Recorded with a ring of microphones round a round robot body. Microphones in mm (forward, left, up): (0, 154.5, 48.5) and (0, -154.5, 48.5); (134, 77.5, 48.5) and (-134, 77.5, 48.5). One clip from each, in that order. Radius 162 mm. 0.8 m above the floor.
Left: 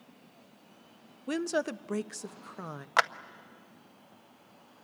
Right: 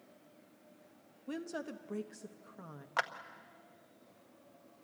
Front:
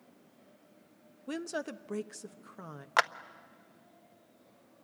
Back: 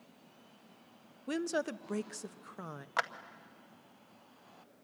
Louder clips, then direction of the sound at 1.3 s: Left 11 dB, back 3 dB; 110° left.